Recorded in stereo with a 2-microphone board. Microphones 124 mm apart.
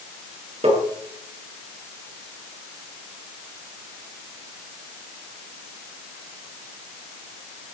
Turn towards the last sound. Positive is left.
turn(degrees=-60)  # may be behind; listen again after turning